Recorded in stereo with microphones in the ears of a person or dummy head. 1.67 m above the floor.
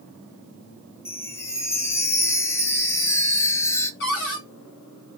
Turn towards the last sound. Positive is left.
turn(degrees=60)  # may be behind; listen again after turning